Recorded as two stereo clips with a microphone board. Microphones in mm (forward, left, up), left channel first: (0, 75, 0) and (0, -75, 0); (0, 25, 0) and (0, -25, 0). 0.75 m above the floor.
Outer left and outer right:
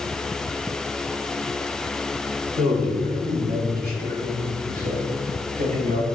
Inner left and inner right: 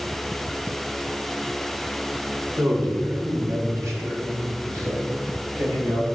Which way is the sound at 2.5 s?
70° right (ahead or behind).